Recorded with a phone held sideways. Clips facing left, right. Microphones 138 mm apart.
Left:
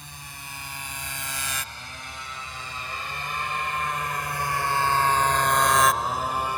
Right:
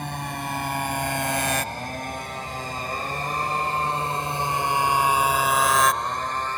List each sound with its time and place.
0.0 s a motorcycle: 70° right (ahead or behind); by 6.6 s 10° left (ahead or behind)